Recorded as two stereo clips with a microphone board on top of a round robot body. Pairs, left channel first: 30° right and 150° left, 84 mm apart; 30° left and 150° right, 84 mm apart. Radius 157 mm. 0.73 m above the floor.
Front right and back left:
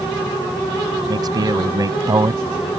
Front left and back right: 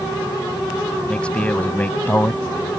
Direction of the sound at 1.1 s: 110° left.